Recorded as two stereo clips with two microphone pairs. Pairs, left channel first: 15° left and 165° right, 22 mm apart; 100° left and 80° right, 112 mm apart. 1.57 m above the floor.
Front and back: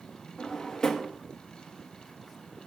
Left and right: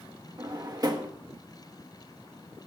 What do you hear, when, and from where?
0.4 s a drawer: 40° right, 1.3 m